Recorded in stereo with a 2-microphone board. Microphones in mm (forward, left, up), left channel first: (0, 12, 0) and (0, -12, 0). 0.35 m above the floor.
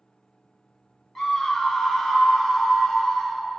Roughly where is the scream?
Centre.